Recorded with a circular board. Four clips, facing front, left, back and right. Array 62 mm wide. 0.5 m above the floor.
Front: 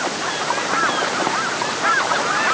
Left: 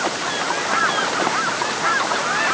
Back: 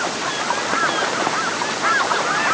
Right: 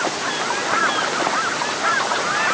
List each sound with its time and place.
Only background noise.